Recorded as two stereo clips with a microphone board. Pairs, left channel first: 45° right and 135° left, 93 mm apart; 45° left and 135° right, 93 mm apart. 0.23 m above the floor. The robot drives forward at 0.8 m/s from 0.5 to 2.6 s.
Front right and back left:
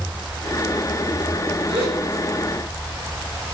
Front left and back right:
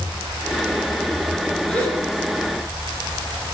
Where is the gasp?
115° left, 2.5 m; by 2.0 s 120° left, 3 m.